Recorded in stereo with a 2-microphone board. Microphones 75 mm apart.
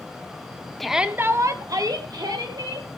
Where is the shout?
Centre (ahead or behind), 0.9 m; by 2.9 s 65° right (ahead or behind), 2.5 m.